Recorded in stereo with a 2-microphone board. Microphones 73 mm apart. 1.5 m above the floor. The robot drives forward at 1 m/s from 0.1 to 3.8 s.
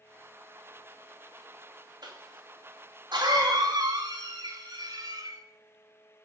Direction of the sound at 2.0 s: 75° right (ahead or behind).